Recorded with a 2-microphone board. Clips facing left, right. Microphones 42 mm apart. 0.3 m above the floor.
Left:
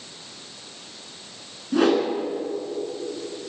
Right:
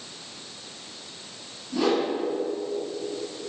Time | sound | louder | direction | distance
1.7 | a whoosh | left 4 dB | 60° left (ahead or behind) | 1.5 m